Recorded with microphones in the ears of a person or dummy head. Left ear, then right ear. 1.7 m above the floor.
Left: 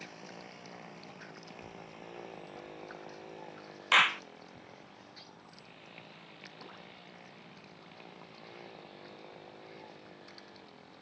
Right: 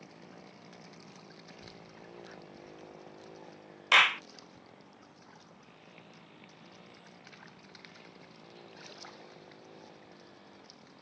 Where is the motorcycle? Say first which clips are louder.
Left 5 dB; 40° left (ahead or behind); by 11.0 s 20° left (ahead or behind).